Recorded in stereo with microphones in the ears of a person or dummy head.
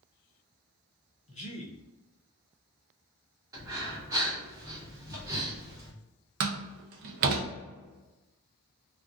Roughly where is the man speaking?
Left.